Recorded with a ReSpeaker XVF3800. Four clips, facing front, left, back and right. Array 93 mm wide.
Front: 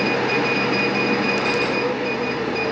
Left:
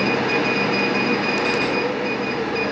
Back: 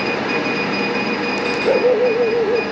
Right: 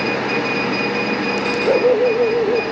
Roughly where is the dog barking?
Behind right.